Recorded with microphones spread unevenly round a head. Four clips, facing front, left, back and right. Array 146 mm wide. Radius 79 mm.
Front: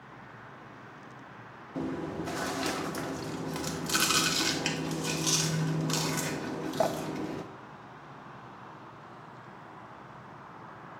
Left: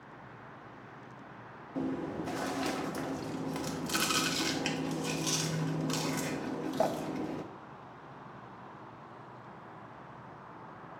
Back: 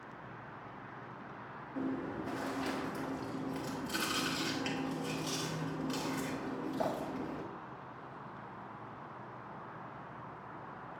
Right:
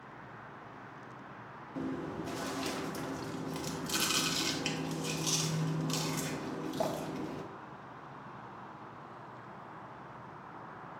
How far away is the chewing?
About 1.0 m.